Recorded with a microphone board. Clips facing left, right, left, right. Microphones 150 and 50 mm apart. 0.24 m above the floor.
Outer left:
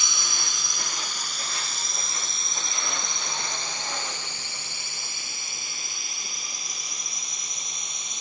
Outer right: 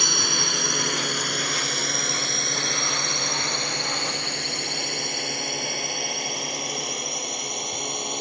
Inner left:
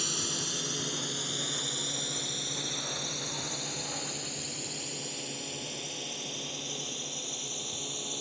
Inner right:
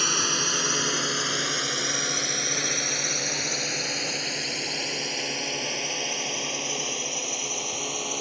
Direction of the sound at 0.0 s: 60° right (ahead or behind).